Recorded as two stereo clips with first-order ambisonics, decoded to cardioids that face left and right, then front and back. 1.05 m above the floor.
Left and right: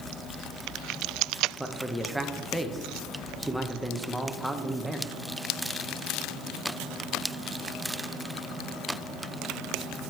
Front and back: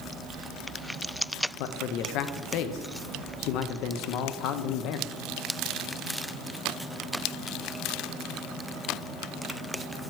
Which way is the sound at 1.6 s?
Straight ahead.